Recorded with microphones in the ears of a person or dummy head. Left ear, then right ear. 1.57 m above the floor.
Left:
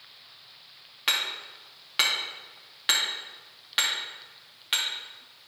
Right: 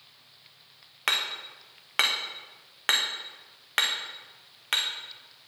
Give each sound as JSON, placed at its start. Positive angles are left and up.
{"t": 1.1, "sound": "hammering", "side_deg": -25, "distance_m": 1.5}